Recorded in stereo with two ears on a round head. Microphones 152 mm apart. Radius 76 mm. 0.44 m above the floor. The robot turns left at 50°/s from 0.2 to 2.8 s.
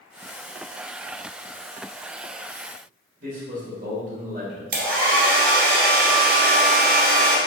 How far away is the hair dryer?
About 1.9 m.